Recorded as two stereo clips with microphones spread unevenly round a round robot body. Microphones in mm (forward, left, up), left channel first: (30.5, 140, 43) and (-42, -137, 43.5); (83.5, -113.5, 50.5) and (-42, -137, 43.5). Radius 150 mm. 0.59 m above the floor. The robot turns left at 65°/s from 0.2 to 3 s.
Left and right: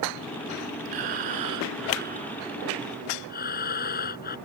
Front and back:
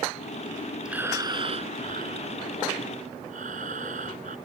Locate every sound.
0.8 s breathing: 85° right; by 4.4 s 135° left